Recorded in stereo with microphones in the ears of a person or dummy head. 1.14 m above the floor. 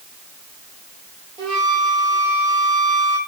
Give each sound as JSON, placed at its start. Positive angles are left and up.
{"t": 1.4, "sound": "a flute", "side_deg": -30, "distance_m": 1.4}